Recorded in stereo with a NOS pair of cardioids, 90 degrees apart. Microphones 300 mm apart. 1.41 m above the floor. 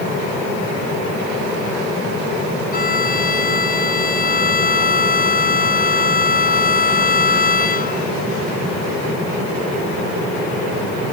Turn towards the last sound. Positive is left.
turn(degrees=30)